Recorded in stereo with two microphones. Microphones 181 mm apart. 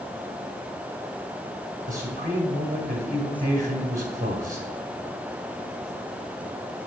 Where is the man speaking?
45° right (ahead or behind), 2 m.